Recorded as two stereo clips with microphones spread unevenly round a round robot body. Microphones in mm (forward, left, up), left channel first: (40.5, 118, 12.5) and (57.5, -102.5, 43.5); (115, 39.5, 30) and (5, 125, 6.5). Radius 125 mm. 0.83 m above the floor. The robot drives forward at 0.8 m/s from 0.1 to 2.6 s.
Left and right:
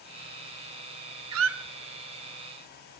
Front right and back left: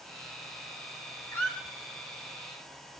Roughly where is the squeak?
Behind right.